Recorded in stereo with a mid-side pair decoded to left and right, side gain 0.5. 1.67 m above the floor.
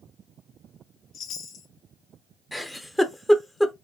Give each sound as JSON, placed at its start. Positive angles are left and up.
{"t": 1.1, "sound": "a chime", "azimuth_deg": 65, "distance_m": 0.5}
{"t": 2.5, "sound": "a giggle", "azimuth_deg": 5, "distance_m": 0.5}